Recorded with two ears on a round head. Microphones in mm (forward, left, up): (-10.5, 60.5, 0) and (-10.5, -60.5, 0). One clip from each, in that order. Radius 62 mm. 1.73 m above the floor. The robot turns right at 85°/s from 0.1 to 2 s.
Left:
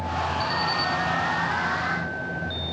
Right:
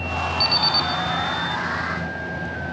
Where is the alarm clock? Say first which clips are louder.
Right 9 dB; 105° right, 4.5 m; by 0.9 s 65° right, 4.5 m.